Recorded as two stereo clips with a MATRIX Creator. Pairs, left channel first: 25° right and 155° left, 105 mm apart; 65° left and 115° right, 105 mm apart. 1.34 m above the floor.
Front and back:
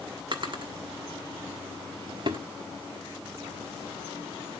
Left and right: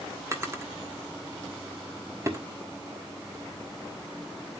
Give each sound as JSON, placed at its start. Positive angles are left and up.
{"t": 0.3, "sound": "a drawer", "azimuth_deg": -170, "distance_m": 1.3}